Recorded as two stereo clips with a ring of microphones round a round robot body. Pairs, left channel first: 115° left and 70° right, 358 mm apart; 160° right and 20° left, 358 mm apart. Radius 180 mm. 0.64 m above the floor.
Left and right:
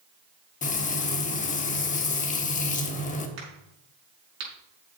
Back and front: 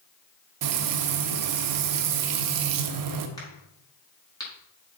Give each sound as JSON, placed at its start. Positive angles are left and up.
{"t": 0.6, "sound": "frying", "azimuth_deg": 45, "distance_m": 1.2}
{"t": 3.4, "sound": "a crack", "azimuth_deg": -75, "distance_m": 5.0}